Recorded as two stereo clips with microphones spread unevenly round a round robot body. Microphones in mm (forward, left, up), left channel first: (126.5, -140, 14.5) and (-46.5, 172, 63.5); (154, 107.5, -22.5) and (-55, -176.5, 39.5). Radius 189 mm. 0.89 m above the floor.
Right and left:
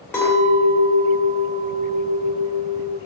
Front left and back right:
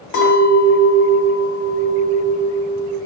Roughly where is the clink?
Ahead.